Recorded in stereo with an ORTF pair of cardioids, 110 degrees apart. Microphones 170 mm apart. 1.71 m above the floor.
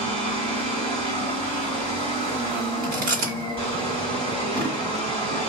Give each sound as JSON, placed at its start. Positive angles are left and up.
{"t": 0.0, "sound": "a machine running", "azimuth_deg": -40, "distance_m": 2.0}
{"t": 2.8, "sound": "chewing", "azimuth_deg": -60, "distance_m": 2.0}